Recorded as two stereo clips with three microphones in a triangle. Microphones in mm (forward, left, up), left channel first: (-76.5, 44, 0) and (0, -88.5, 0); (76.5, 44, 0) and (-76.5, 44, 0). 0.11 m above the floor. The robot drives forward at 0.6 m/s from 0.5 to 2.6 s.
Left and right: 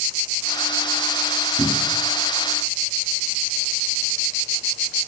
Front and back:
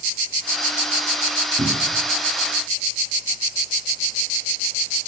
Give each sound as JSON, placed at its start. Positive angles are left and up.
{"t": 1.6, "sound": "a cupboard door", "azimuth_deg": -150, "distance_m": 2.0}